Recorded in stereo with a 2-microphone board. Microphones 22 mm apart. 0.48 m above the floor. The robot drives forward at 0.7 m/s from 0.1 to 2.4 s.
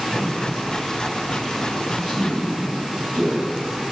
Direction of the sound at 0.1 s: 35° right (ahead or behind).